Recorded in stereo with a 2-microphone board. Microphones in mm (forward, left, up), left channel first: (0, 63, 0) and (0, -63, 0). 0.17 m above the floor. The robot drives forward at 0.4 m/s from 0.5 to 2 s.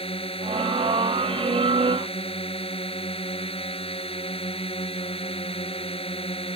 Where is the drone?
45° left (ahead or behind); by 6.5 s 50° left (ahead or behind).